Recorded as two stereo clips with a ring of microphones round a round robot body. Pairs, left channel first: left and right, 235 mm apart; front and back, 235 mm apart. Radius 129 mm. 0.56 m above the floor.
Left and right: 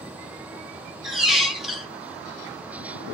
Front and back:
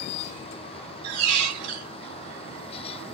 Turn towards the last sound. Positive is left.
turn(degrees=180)